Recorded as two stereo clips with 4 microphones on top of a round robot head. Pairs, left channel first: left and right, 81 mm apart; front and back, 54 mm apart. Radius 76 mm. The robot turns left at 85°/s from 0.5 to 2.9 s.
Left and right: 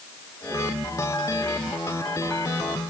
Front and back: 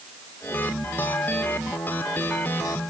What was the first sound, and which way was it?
Only background noise.